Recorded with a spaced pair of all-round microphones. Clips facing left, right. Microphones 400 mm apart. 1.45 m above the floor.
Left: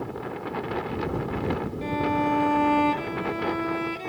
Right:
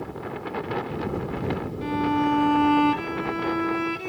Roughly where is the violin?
Right.